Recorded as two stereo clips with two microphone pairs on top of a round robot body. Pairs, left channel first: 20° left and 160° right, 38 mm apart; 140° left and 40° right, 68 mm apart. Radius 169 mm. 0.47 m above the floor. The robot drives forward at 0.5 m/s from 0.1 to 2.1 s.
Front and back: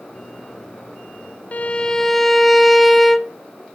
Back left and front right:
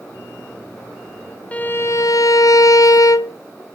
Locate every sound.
1.5 s a violin: 70° left, 0.5 m; by 3.3 s 105° left, 0.5 m